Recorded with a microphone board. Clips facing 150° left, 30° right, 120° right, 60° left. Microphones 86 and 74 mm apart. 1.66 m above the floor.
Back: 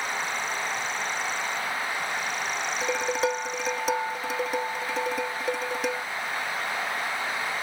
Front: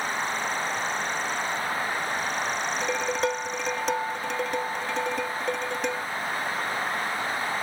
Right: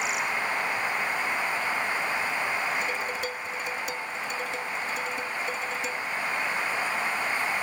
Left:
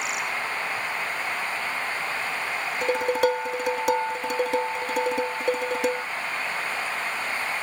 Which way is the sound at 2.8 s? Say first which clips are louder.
Back 1 dB, left 8 dB; 65° left.